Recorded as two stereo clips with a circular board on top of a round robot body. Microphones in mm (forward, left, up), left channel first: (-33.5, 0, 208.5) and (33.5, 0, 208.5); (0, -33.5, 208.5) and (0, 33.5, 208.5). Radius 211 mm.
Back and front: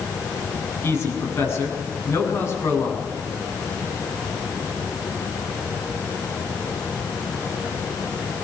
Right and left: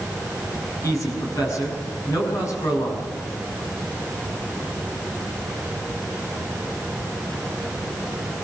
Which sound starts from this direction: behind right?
A man speaking, at 0.8 s.